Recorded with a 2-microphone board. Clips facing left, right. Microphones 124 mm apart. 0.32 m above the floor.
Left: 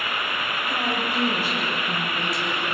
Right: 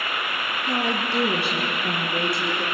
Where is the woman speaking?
75° right (ahead or behind), 5.5 m; by 2.6 s 60° right (ahead or behind), 7.5 m.